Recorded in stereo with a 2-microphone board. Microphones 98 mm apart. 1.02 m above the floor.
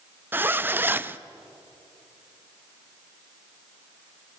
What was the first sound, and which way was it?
A zipper, 20° right (ahead or behind).